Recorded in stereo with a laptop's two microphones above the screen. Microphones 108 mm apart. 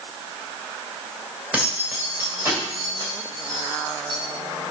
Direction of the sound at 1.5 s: 10° right (ahead or behind).